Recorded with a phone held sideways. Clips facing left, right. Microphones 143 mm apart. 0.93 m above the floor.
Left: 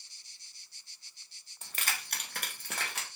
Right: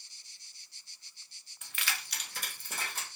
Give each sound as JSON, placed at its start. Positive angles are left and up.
{"t": 1.6, "sound": "keys jangling", "side_deg": 35, "distance_m": 0.5}